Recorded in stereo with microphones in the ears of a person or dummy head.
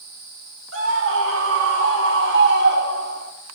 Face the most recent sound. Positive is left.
turn(degrees=-55)  # may be behind; listen again after turning